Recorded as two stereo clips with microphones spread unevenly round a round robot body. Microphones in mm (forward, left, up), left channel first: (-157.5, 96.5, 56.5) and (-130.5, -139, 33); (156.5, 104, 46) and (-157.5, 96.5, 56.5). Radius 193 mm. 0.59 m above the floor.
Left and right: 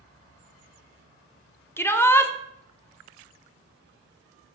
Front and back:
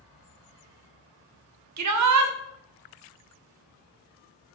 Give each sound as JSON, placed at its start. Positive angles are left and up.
{"t": 1.8, "sound": "a shout", "azimuth_deg": 180, "distance_m": 1.3}